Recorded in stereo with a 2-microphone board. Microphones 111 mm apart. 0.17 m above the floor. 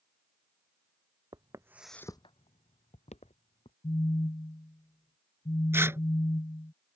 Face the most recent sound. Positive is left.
turn(degrees=-20)  # may be behind; listen again after turning